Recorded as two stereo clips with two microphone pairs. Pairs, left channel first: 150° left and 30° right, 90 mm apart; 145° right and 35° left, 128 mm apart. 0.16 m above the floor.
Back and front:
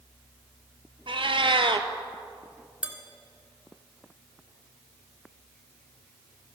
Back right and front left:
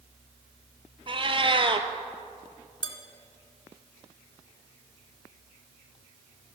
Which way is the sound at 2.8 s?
105° right.